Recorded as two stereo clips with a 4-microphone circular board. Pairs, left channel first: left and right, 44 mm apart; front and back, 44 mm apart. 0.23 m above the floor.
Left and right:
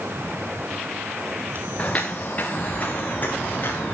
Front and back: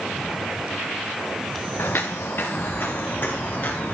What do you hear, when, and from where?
1.8 s footsteps: 30° left, 1.6 m; by 4.0 s 45° left, 3.5 m